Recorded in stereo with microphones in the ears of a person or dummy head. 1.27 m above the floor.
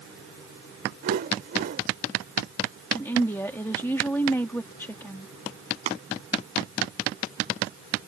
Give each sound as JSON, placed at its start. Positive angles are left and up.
{"t": 1.0, "sound": "a whoosh", "side_deg": -60}
{"t": 2.9, "sound": "a woman speaking", "side_deg": 0}
{"t": 5.9, "sound": "tapping", "side_deg": -50}